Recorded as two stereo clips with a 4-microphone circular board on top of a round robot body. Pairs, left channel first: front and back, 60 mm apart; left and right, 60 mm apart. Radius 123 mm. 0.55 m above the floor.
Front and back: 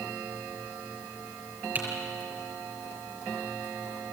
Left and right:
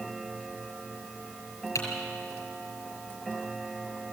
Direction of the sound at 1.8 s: 120° left.